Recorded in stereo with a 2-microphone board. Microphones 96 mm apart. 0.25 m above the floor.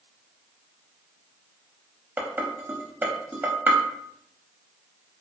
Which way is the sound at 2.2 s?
20° right (ahead or behind).